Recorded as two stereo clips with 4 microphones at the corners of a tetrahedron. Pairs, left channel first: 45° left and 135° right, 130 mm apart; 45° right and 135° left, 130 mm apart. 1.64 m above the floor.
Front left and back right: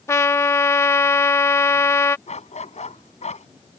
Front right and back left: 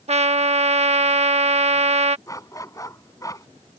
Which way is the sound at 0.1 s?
110° left.